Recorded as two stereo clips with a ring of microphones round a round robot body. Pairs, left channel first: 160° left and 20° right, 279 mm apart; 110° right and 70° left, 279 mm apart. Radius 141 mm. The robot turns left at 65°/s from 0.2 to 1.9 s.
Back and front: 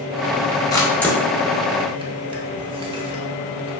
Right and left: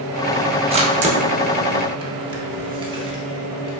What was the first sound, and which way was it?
A camera shutter, 100° left.